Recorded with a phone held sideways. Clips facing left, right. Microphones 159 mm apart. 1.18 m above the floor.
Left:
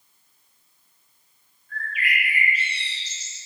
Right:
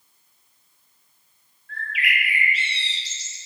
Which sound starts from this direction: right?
A bird, at 1.7 s.